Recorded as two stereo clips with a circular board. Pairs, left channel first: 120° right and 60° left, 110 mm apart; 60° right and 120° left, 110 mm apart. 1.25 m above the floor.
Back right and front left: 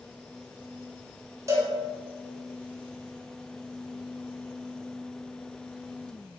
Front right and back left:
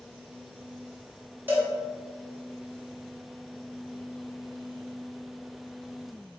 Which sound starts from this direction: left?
A cowbell, at 1.5 s.